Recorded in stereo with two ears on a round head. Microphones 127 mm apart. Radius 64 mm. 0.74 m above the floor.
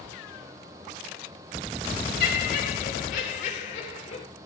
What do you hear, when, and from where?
2.2 s laughter: 65° left (ahead or behind), 3 m; by 4.2 s 50° left (ahead or behind), 3.5 m